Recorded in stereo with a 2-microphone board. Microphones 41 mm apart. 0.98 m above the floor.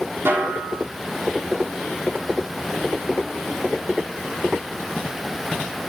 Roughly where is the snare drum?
Right.